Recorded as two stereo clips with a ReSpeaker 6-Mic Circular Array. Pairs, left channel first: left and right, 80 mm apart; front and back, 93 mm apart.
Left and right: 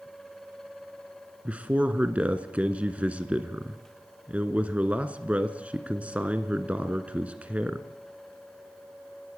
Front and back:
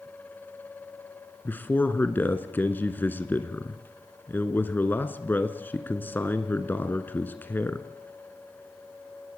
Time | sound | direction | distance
1.4 | a man speaking | 40° right | 1.8 m